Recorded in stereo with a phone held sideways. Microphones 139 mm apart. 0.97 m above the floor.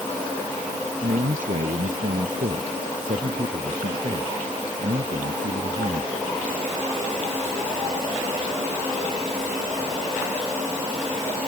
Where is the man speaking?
80° right.